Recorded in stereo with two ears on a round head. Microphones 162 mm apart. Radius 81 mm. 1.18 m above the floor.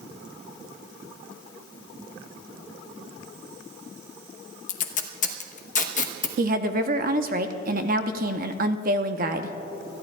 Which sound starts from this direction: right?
A woman speaking, at 6.4 s.